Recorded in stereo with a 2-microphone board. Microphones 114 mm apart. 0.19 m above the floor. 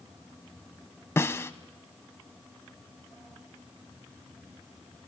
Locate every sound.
1.2 s a snare drum: 25° left (ahead or behind), 0.5 m